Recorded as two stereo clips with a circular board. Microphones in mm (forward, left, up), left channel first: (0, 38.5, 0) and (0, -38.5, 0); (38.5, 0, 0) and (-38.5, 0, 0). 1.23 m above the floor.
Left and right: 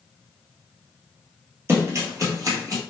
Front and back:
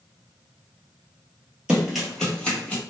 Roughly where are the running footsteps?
Behind right.